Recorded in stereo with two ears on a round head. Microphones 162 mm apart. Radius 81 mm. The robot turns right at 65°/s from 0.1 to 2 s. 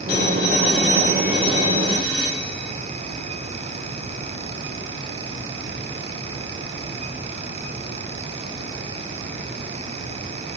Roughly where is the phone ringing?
Ahead left.